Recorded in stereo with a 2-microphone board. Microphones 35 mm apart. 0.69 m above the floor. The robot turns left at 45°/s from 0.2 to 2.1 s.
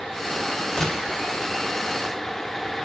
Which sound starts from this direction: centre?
A gunshot, at 0.8 s.